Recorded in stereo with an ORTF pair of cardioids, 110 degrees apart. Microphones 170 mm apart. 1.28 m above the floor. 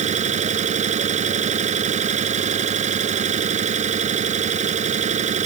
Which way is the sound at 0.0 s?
45° right.